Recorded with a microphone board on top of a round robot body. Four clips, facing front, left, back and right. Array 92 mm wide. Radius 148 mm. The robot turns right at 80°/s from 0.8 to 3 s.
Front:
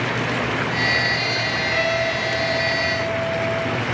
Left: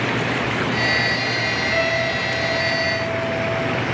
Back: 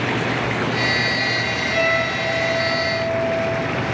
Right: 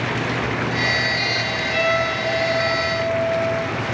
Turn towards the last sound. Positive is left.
turn(degrees=155)